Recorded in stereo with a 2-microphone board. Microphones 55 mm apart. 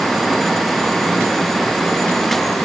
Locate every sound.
Only background noise.